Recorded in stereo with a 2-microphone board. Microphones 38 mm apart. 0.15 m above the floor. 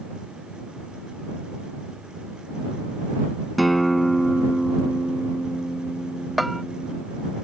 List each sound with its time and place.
3.6 s a guitar: centre (ahead or behind)
6.4 s a bell: 5° right (ahead or behind)